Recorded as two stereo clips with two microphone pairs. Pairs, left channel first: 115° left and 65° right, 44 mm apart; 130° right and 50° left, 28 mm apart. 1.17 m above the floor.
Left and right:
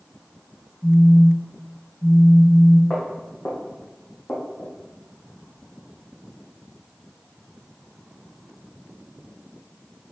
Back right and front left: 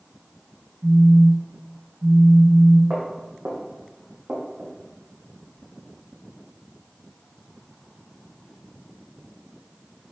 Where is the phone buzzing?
50° left, 1.6 m.